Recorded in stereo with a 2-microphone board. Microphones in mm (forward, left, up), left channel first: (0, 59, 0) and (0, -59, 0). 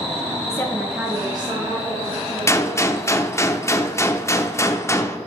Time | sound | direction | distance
0.5 | a woman speaking | 25° left (ahead or behind) | 1.1 m
2.5 | a gunshot | 25° left (ahead or behind) | 0.5 m